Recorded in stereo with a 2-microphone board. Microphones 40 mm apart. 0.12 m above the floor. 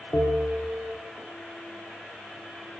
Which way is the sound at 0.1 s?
50° left (ahead or behind).